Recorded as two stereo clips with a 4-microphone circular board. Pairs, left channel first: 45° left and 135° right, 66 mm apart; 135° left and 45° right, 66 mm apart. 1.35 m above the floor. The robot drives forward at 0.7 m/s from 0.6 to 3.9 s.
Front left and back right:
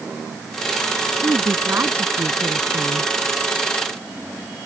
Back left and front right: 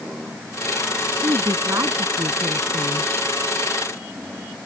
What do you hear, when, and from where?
1.2 s a woman speaking: 80° right; by 3.1 s 85° right